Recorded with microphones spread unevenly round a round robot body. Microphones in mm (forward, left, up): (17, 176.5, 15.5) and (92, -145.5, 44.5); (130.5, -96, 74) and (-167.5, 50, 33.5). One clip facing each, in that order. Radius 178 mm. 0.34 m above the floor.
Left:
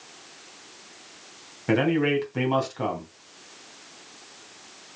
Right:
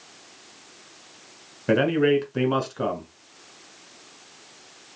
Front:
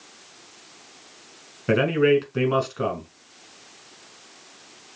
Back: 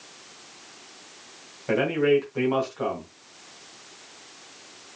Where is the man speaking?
10° left, 2.5 m.